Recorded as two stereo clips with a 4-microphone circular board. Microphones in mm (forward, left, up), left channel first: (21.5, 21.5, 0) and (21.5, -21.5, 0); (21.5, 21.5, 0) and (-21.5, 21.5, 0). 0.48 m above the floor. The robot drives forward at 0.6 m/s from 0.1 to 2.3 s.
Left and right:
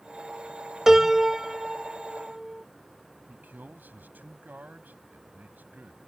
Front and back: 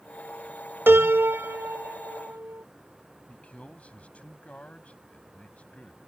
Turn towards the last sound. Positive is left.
turn(degrees=-55)